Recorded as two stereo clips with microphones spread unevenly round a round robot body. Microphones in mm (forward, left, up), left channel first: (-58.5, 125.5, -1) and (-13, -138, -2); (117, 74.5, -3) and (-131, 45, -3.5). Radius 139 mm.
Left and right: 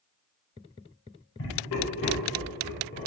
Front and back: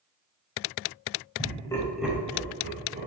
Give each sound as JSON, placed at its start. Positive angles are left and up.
{"t": 1.4, "sound": "laughter", "azimuth_deg": 65, "distance_m": 1.3}